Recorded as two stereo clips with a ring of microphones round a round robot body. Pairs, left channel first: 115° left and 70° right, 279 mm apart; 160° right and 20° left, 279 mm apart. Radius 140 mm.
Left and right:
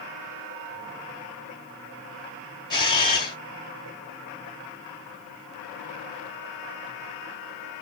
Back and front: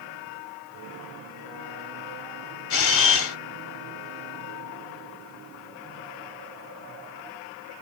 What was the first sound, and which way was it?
A camera shutter, 175° right.